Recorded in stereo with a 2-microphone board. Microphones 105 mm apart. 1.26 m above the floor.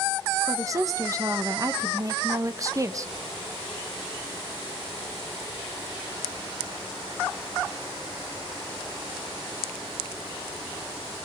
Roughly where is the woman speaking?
Right.